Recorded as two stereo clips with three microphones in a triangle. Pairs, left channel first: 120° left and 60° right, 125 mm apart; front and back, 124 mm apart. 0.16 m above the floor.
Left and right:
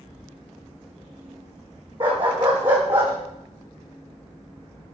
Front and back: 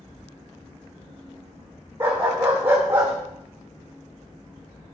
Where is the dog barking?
110° right, 4.5 m; by 3.1 s 105° right, 5 m.